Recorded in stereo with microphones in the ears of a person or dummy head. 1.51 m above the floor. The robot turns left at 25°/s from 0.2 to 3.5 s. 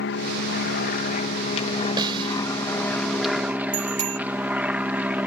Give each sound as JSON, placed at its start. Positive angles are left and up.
{"t": 0.0, "sound": "an aircraft", "azimuth_deg": 70}
{"t": 2.0, "sound": "a snare drum", "side_deg": -25}
{"t": 3.7, "sound": "a bicycle bell", "side_deg": -30}